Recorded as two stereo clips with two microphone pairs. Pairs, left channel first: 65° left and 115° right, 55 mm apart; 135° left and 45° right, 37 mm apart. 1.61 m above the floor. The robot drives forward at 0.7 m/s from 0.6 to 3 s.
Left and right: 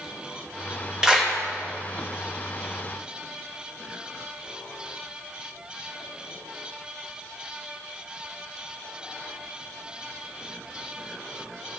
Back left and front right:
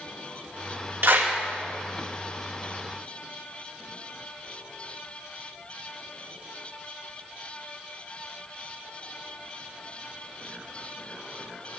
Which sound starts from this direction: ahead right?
A clap, at 1.0 s.